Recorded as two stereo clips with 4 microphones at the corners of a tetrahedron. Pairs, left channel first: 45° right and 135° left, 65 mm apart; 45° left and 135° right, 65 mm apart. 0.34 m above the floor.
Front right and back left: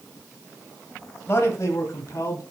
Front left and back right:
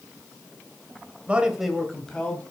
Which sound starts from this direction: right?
A man speaking, at 1.3 s.